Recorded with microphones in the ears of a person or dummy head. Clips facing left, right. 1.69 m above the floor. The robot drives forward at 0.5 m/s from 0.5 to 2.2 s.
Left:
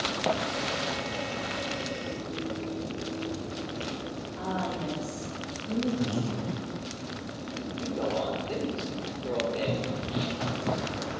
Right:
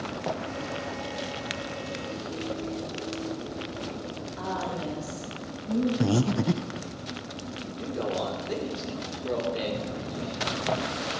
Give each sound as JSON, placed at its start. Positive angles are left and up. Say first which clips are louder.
{"t": 4.4, "sound": "a woman speaking", "louder": "even", "side_deg": 5, "distance_m": 5.0}
{"t": 6.0, "sound": "breathing", "louder": "right 6 dB", "side_deg": -70, "distance_m": 0.6}
{"t": 7.8, "sound": "a man speaking", "louder": "even", "side_deg": -10, "distance_m": 4.0}
{"t": 9.6, "sound": "running footsteps", "louder": "left 1 dB", "side_deg": 55, "distance_m": 3.0}